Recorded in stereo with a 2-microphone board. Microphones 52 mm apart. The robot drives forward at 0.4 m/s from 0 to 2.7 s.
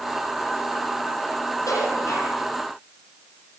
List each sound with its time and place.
1.7 s dishes clattering: 85° left, 9.5 m